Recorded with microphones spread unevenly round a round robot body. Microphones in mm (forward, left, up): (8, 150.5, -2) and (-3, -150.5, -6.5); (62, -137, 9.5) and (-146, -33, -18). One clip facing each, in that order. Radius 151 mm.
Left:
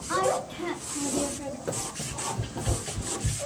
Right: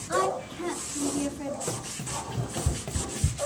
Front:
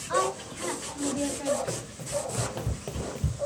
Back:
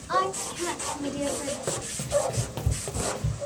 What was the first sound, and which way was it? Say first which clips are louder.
A woman speaking: left 1 dB, front 1 dB; 155° left.